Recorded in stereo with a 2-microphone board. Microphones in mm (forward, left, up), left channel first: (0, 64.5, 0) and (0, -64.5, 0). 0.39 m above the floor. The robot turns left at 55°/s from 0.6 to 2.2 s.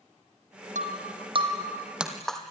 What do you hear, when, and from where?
0.8 s breaking glass: 75° right (ahead or behind), 2.5 m; by 2.4 s 5° left (ahead or behind), 2.5 m